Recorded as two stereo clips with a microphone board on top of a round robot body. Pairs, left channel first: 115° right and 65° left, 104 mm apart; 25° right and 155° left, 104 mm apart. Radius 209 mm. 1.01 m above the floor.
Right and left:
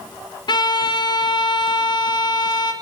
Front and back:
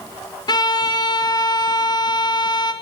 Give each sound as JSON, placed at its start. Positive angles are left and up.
{"t": 0.5, "sound": "a violin", "azimuth_deg": -70, "distance_m": 2.5}